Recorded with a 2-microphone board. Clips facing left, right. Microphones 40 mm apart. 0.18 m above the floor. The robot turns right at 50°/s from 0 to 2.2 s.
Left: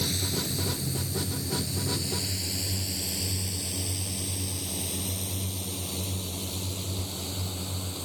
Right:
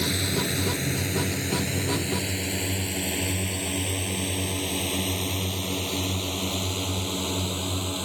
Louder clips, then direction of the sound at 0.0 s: Right 5 dB; 35° right (ahead or behind).